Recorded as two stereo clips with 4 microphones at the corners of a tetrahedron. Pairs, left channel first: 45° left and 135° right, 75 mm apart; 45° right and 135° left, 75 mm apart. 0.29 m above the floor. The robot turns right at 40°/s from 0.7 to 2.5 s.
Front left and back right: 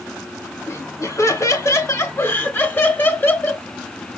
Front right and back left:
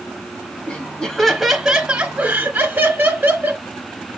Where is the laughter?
20° left, 1.1 m; by 3.6 s 90° left, 1.1 m.